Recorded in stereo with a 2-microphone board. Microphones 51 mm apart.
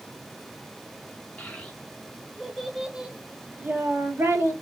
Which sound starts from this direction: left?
A child speaking, at 1.4 s.